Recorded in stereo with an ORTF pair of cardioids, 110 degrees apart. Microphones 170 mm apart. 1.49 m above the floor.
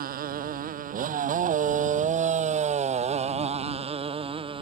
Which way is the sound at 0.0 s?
60° right.